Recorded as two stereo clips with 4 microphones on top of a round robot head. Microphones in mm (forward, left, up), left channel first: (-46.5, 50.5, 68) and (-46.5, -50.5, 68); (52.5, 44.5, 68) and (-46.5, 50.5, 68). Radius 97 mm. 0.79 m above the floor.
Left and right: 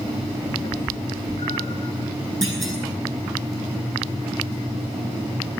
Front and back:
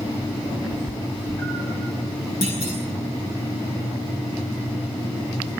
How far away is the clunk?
About 9 m.